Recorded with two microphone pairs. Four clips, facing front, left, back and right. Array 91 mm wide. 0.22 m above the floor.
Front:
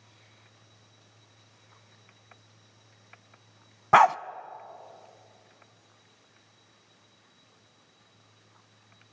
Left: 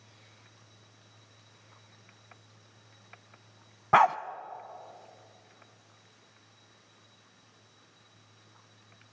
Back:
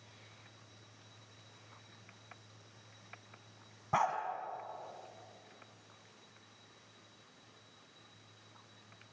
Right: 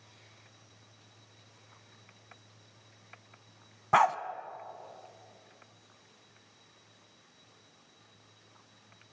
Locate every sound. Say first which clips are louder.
3.9 s a dog barking: left 3 dB, front 14 dB; 15° left, 0.7 m